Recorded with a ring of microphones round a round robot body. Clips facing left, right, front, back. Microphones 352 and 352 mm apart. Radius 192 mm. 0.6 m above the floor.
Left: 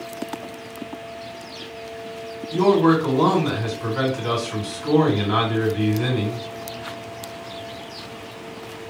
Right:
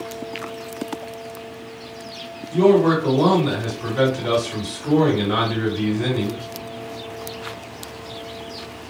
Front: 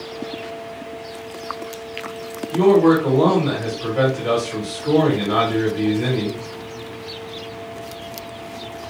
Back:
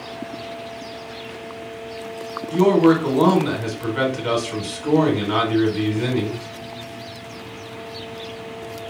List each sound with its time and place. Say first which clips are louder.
2.5 s a man speaking: right 2 dB, front 1 dB; 150° left, 1.6 m